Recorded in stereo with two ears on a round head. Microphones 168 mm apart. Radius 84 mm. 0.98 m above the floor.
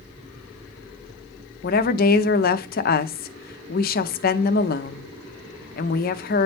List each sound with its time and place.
1.6 s a woman speaking: 50° left (ahead or behind), 0.7 m